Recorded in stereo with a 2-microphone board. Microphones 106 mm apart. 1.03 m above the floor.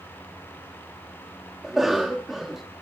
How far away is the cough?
About 1.4 m.